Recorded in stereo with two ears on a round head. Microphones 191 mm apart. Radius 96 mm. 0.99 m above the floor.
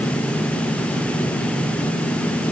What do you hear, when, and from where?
Only background noise.